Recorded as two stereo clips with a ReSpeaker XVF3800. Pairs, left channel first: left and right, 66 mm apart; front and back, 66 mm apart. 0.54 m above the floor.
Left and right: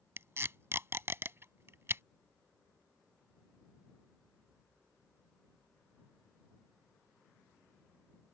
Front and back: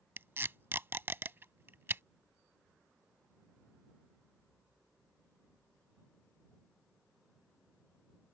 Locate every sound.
0.2 s tape being pulled: 130° right